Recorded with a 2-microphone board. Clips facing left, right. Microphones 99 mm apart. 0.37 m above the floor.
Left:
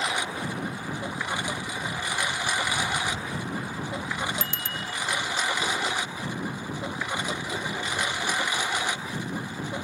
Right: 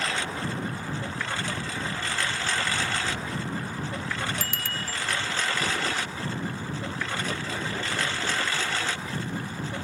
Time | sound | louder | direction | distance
0.0 | a lawn mower | left 1 dB | 15° left (ahead or behind) | ?
4.4 | a bicycle bell | even | 25° left (ahead or behind) | ?